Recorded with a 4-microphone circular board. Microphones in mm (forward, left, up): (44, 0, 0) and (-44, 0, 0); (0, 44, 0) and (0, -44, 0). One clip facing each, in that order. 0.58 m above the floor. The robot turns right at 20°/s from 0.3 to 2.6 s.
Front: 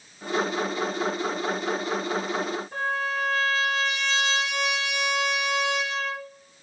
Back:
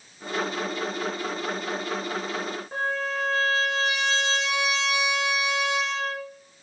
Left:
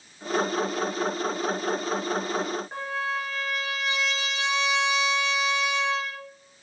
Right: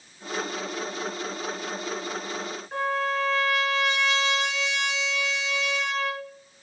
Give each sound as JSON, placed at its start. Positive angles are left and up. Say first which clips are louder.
{"t": 2.7, "sound": "a trumpet", "louder": "back 2 dB, right 4 dB", "azimuth_deg": 165, "distance_m": 2.0}